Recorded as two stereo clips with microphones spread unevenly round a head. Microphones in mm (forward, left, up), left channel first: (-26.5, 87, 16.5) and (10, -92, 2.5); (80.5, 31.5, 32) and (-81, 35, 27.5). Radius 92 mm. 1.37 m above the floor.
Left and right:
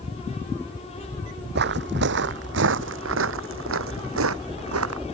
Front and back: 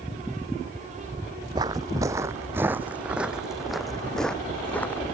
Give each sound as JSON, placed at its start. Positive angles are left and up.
{"t": 1.6, "sound": "footsteps", "azimuth_deg": -110}